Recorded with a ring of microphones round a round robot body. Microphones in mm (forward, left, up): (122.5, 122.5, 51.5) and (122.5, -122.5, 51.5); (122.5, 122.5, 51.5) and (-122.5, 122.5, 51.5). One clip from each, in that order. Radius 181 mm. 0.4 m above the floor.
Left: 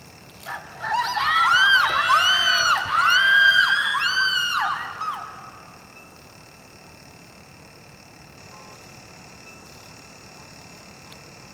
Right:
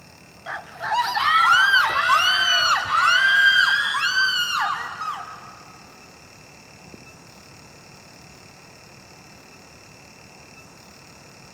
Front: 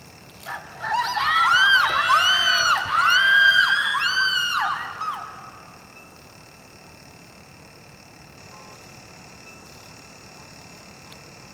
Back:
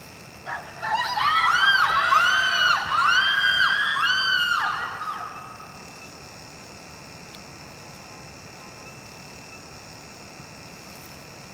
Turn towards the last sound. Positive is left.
turn(degrees=-15)